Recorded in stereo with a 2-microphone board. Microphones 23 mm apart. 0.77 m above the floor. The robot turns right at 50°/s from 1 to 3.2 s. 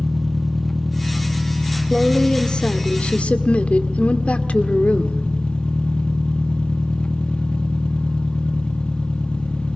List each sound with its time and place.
0.0 s an engine running: 15° left, 1.0 m; by 9.8 s 125° left, 1.0 m
1.9 s a woman speaking: 15° left, 1.9 m; by 5.2 s 80° left, 1.9 m